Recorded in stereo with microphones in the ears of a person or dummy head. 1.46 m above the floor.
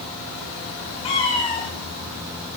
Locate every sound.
1.0 s a cat meowing: 30° left (ahead or behind), 2.5 m; by 2.6 s 40° left (ahead or behind), 3 m